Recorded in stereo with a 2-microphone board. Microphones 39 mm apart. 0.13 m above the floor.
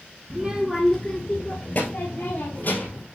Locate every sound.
0.3 s a child speaking: 30° right (ahead or behind), 1.2 m; by 3.0 s 50° left (ahead or behind), 3.5 m